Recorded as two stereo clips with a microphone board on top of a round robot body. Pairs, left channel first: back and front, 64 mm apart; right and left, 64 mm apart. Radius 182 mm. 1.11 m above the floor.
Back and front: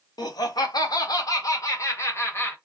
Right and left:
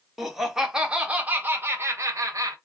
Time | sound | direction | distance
0.2 | laughter | straight behind | 1.5 m